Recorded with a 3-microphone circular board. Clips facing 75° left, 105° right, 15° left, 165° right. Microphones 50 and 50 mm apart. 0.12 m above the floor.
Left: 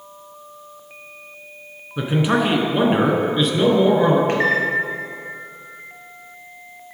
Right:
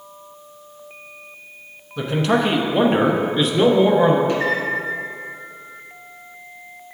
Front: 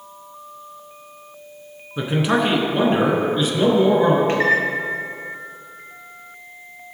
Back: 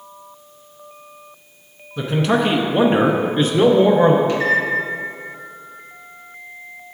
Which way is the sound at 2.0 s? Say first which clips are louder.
Even, back 1 dB; 40° left.